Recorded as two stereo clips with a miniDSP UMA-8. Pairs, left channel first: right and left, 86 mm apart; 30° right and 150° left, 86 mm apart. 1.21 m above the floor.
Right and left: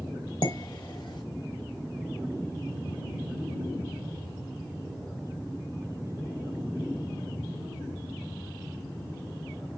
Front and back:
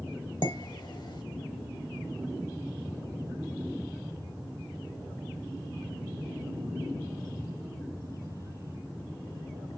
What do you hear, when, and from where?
0.4 s dishes clattering: 65° right, 1.1 m